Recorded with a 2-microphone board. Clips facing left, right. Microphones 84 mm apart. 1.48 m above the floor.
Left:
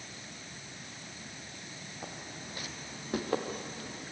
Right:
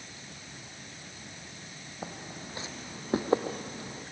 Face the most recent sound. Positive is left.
turn(degrees=-25)  # may be behind; listen again after turning